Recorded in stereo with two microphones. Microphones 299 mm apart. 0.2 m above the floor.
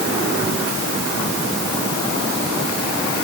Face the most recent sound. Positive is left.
No sound to turn to.